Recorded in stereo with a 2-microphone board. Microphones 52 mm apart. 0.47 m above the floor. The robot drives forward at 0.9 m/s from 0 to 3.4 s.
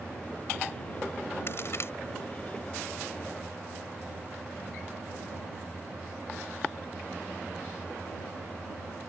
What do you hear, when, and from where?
1.5 s a crack: 50° left (ahead or behind); by 1.9 s 55° left (ahead or behind)